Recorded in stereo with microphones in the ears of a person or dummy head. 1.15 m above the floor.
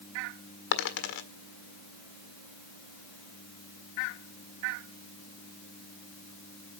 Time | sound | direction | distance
0.7 | a dropped coin | 70° left (ahead or behind) | 1.6 m